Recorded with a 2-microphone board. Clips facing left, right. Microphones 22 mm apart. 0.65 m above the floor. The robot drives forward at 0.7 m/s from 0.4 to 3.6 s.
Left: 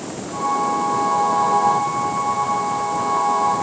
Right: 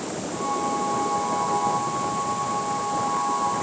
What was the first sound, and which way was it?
Only background noise.